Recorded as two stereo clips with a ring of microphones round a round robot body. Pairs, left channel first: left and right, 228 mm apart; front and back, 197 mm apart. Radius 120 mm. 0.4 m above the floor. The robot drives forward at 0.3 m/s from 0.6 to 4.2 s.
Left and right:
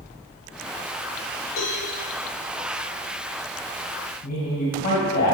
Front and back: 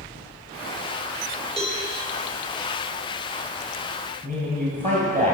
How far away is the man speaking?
About 2.5 m.